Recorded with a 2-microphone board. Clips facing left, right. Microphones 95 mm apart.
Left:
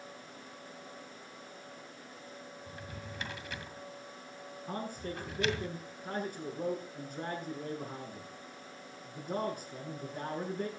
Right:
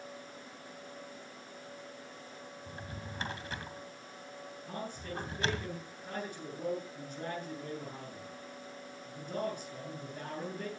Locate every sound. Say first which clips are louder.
2.7 s a drawer: right 1 dB; 35° right (ahead or behind), 2 m
4.7 s a man speaking: left 3 dB; 40° left (ahead or behind), 7 m